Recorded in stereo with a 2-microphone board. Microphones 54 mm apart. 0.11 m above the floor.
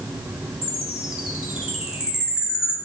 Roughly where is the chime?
Centre.